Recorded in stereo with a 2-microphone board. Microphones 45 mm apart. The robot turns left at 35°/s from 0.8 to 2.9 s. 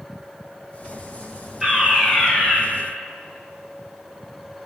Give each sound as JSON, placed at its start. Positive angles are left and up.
{"t": 1.6, "sound": "a fire alarm", "azimuth_deg": -170, "distance_m": 9.0}